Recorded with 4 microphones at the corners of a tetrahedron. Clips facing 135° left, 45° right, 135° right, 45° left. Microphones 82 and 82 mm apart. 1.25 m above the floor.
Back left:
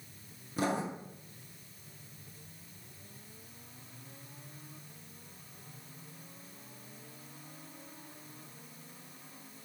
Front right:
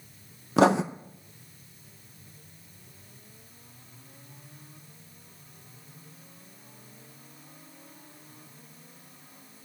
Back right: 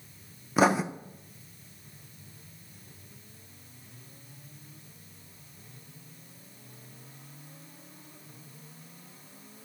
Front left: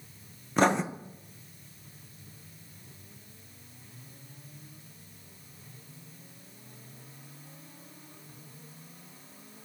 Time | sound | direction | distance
0.6 | writing | 50° right | 0.7 m